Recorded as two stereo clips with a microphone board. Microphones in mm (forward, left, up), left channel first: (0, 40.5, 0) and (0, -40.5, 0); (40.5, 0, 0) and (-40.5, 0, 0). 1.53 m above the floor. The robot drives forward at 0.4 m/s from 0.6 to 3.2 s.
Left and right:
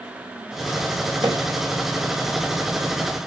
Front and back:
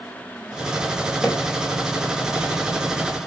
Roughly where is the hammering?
Right.